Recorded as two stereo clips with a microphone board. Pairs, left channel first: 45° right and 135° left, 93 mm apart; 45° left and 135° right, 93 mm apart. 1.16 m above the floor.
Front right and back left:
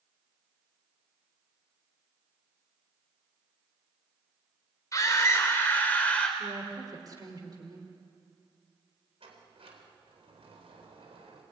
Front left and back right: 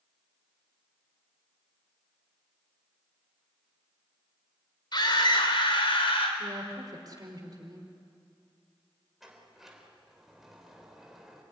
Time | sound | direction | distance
4.9 | a scream | 10° left | 4.5 m
6.4 | a woman speaking | straight behind | 4.5 m
9.2 | a sliding door | 140° left | 3.5 m